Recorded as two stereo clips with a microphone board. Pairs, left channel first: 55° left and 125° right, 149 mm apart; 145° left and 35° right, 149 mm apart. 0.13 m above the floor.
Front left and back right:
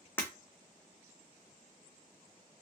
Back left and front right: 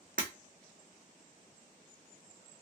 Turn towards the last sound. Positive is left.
turn(degrees=-20)